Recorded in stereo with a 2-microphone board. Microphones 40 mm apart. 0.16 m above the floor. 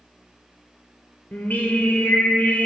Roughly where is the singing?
Left.